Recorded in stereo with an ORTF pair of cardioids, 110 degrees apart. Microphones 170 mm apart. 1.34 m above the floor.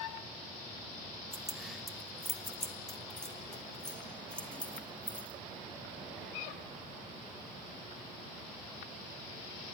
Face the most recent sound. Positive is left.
turn(degrees=5)